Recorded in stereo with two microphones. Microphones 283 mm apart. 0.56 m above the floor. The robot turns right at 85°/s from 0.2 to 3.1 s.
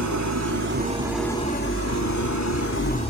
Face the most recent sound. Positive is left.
turn(degrees=160)